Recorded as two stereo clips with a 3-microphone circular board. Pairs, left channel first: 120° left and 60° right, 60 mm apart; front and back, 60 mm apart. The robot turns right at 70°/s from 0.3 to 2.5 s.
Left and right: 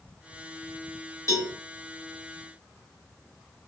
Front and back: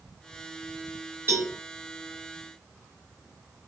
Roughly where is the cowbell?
Behind left.